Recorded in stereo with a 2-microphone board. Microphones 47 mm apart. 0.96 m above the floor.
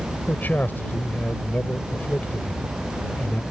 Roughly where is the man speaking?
Left.